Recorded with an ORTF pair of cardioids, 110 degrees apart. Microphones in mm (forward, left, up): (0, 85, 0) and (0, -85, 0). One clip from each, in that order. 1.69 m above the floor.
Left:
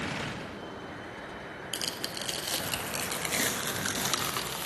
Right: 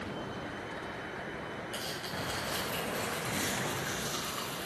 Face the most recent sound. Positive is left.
turn(degrees=65)